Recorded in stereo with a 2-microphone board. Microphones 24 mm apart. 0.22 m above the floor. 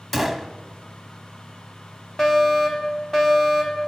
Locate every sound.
0.1 s a gunshot: 5° left (ahead or behind), 0.8 m
2.2 s a fire alarm: 20° left (ahead or behind), 2 m